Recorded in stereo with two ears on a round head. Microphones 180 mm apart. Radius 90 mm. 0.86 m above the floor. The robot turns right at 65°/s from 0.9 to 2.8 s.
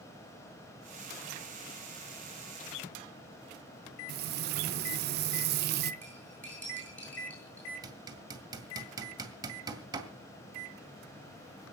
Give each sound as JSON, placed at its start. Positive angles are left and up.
{"t": 4.1, "sound": "frying", "side_deg": -50, "distance_m": 0.7}
{"t": 6.0, "sound": "cutlery clinking", "side_deg": 10, "distance_m": 10.0}
{"t": 7.8, "sound": "hammering", "side_deg": -20, "distance_m": 2.0}